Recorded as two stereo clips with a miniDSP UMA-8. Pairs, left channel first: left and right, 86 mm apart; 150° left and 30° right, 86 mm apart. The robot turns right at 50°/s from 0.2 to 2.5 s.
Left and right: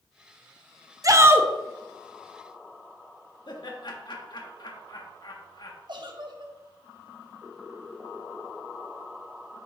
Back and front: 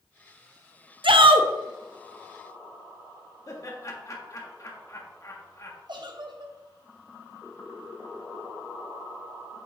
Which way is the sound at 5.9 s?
60° right.